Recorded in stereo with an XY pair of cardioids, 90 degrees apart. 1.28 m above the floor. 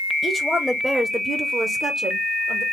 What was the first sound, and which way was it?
A woman speaking, 15° left.